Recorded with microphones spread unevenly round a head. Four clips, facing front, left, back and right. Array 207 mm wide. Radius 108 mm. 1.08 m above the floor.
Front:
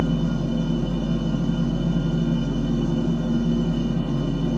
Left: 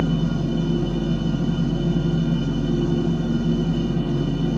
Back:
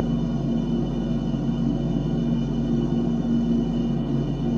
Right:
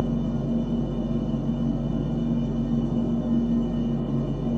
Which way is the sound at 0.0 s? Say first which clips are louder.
Left 3 dB, front 1 dB; 95° left.